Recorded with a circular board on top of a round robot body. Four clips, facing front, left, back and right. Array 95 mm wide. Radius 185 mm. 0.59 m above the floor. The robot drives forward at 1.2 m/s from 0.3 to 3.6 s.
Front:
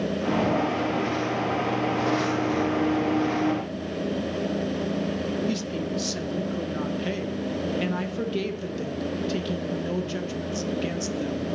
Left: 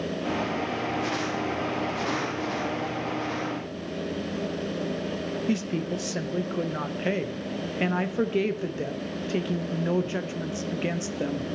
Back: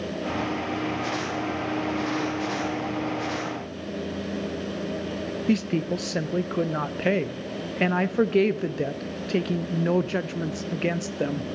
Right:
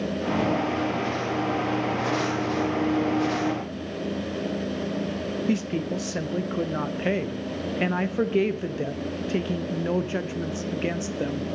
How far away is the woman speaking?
About 0.8 m.